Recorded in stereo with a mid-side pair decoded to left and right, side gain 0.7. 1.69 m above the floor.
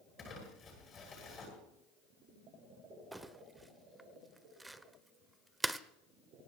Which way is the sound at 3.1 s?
10° right.